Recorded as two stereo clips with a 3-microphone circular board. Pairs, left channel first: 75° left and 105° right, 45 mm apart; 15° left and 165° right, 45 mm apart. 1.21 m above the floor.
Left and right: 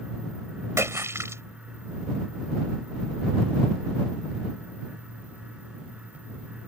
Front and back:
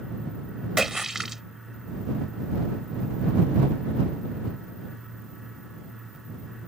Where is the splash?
80° right.